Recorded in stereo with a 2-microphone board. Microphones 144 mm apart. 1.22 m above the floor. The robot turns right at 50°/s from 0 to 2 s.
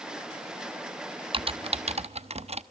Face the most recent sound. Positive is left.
turn(degrees=-45)  # may be behind; listen again after turning